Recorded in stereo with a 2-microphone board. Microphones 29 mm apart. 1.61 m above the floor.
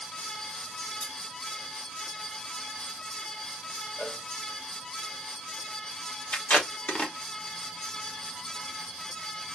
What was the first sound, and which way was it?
Cutlery clinking, 65° left (ahead or behind).